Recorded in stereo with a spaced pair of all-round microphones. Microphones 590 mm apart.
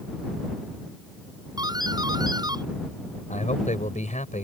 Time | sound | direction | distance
1.6 | a doorbell | 5° right (ahead or behind) | ?
3.3 | a man speaking | 10° left (ahead or behind) | ?